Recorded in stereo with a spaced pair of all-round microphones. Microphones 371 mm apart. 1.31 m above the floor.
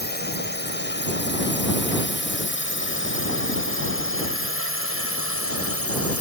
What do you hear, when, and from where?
0.0 s a drone: 25° left (ahead or behind); by 6.2 s 40° left (ahead or behind)